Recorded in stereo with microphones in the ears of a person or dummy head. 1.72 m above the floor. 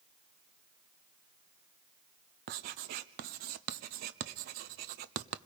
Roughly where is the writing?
Right.